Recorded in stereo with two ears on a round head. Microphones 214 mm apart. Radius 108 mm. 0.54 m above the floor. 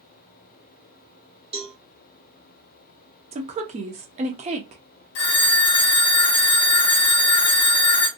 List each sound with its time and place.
1.5 s a cowbell: 25° right (ahead or behind), 0.8 m
3.3 s a woman speaking: 30° right (ahead or behind), 0.7 m
5.2 s a phone ringing: 50° left (ahead or behind), 0.9 m